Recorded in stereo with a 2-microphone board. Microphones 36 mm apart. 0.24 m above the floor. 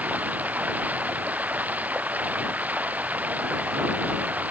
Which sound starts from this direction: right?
Running water, at 0.0 s.